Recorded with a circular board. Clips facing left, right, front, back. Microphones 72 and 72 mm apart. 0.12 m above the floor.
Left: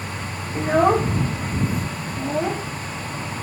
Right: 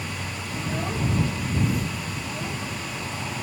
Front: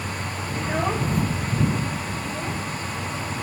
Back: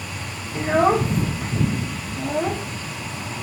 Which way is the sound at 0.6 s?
120° left.